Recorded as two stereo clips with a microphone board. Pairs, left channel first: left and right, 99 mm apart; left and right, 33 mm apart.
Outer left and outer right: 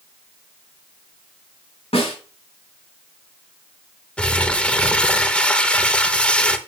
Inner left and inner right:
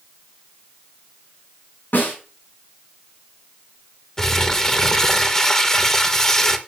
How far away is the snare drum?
About 6 m.